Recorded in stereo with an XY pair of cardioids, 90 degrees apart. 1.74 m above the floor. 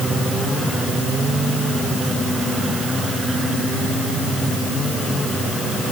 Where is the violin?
No violin in this recording.